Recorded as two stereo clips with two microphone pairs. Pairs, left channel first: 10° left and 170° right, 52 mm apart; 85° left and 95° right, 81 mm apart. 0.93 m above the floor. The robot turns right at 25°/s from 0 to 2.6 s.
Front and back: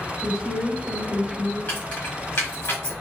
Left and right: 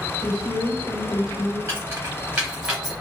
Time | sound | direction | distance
0.2 | a woman speaking | 100° left | 1.1 m
1.7 | keys jangling | 40° right | 2.0 m